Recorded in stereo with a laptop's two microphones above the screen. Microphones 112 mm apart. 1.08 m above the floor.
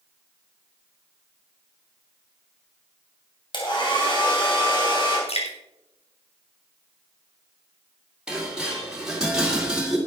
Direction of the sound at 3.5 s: 45° left (ahead or behind).